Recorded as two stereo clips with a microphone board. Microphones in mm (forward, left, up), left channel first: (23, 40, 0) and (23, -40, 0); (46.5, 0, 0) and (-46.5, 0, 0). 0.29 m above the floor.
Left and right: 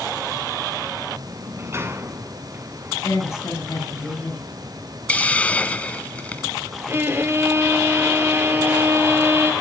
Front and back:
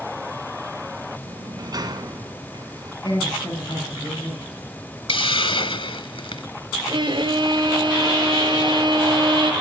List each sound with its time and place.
1.3 s a sliding door: 140° right, 1.9 m
3.0 s a woman speaking: 35° left, 8.5 m
5.1 s a hiss: 20° left, 0.8 m
6.9 s a violin: 150° right, 1.7 m